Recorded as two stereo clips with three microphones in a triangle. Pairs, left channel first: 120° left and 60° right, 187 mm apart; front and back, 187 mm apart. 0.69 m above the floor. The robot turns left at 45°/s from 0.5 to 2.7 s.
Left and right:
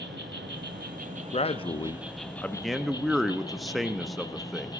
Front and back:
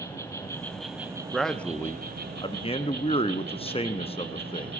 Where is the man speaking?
90° left, 0.5 m; by 4.7 s 30° left, 0.5 m.